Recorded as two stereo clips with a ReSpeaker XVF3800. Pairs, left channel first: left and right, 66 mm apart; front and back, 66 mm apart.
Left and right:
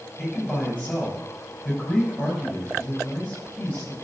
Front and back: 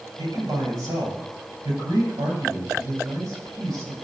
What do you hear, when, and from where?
0.2 s a man speaking: 165° left, 7 m